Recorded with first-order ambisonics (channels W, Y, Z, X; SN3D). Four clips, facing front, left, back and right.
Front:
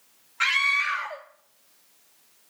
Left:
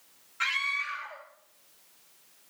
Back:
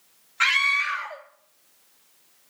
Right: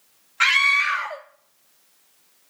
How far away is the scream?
About 0.7 m.